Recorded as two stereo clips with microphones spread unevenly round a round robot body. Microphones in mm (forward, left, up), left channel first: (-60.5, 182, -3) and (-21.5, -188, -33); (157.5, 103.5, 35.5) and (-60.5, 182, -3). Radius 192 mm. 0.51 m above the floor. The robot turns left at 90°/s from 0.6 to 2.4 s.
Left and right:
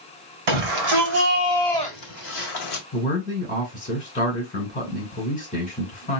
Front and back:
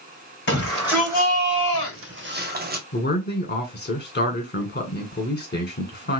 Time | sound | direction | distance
0.5 | a shout | 80° right | 1.8 m
2.9 | a man speaking | 25° left | 2 m